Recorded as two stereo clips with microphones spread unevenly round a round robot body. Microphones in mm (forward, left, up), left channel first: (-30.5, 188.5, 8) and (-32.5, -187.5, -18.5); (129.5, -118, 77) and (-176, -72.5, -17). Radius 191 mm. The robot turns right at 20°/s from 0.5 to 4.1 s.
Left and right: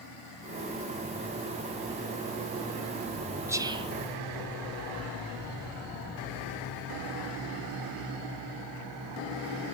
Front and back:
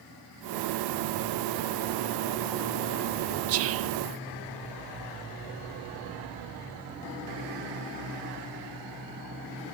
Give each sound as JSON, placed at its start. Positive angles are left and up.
{"t": 3.5, "sound": "whispering", "azimuth_deg": -170, "distance_m": 0.6}